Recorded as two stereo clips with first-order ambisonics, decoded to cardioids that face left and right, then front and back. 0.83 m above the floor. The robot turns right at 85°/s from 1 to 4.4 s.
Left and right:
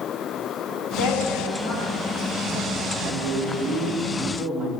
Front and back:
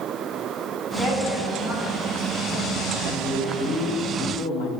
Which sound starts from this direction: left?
A woman speaking, at 1.0 s.